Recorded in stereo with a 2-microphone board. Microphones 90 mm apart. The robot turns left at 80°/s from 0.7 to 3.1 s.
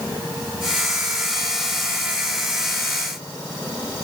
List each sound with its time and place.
Only background noise.